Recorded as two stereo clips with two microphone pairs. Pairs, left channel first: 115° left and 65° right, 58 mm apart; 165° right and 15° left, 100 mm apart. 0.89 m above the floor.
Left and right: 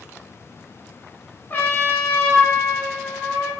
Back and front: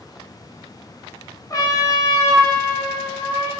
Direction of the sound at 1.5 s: 155° left.